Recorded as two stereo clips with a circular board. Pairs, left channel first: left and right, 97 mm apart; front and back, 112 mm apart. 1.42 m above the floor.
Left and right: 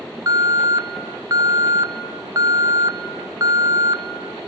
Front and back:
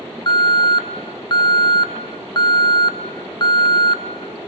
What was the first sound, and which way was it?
An alarm, 40° right.